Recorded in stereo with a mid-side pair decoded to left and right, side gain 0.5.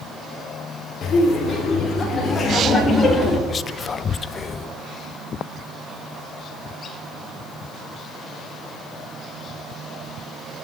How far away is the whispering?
About 0.6 m.